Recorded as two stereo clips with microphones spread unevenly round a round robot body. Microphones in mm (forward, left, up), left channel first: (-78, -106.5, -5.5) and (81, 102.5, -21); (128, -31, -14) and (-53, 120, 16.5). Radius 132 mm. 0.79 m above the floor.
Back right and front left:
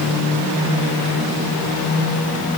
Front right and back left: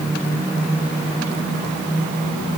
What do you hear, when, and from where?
Only background noise.